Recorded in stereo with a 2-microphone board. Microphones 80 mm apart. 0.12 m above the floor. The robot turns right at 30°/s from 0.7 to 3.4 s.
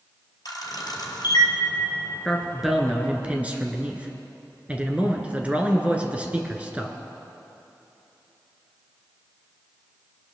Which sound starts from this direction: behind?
A man speaking, at 2.2 s.